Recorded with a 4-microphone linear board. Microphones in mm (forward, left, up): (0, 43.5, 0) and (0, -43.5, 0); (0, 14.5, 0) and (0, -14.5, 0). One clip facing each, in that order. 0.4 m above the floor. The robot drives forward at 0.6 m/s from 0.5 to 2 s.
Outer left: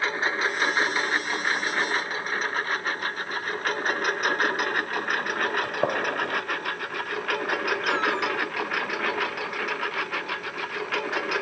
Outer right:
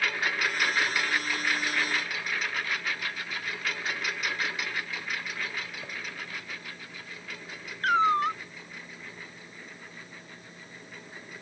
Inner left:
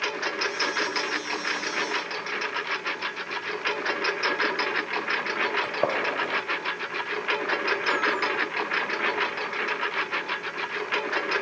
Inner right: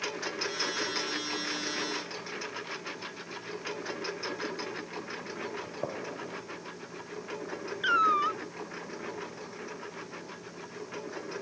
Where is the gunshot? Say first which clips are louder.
Outer left 15 dB, inner left 12 dB; 85° left.